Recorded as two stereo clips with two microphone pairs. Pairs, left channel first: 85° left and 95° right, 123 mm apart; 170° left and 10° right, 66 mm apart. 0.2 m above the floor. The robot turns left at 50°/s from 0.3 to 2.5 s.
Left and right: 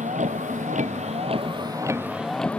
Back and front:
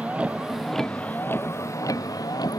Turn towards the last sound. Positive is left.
turn(degrees=170)